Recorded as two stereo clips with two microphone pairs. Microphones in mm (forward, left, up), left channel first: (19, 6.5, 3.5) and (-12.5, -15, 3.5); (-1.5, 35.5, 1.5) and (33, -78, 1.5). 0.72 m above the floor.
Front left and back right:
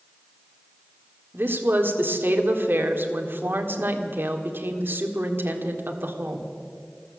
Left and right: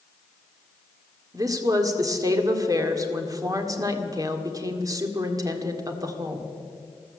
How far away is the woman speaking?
About 1.7 m.